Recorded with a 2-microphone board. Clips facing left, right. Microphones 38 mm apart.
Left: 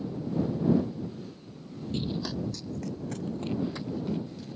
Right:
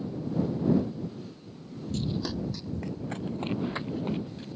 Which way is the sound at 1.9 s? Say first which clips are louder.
Right 1 dB; 35° left (ahead or behind).